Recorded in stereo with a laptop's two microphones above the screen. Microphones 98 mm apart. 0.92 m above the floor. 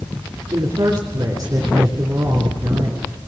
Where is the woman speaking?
45° right (ahead or behind), 3 m.